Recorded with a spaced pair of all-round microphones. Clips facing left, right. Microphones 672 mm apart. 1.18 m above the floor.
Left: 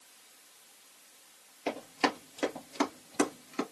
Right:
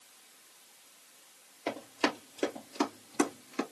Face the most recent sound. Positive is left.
turn(degrees=-5)  # may be behind; listen again after turning